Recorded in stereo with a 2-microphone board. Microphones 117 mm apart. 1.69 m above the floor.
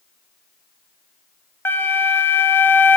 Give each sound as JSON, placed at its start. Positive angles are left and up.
{"t": 1.6, "sound": "a flute", "side_deg": 20, "distance_m": 1.1}